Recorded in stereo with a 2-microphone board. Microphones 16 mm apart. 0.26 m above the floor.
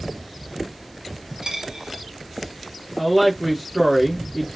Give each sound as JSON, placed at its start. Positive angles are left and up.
{"t": 1.4, "sound": "a dropped coin", "side_deg": -60, "distance_m": 1.1}
{"t": 3.0, "sound": "a woman speaking", "side_deg": 0, "distance_m": 1.1}